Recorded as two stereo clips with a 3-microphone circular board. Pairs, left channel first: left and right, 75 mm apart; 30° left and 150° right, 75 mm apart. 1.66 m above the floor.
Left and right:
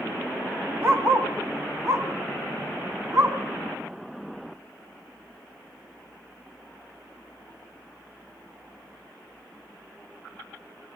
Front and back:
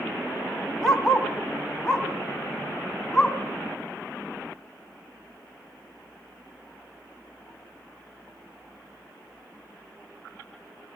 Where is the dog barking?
55° right, 2.0 m.